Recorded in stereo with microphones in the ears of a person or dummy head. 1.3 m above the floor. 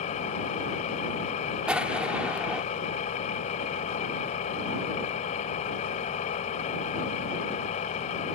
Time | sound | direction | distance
0.0 | an engine running | 45° left (ahead or behind) | ?
1.7 | an explosion | 5° right (ahead or behind) | ?